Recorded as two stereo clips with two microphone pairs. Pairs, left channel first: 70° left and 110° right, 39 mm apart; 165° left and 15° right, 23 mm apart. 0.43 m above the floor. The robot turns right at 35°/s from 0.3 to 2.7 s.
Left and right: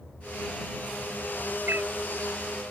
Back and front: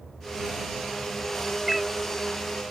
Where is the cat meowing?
100° right; by 1.9 s 95° right.